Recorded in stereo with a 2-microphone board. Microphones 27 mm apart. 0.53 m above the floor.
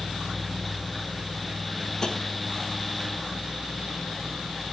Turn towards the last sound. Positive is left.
turn(degrees=30)  # may be behind; listen again after turning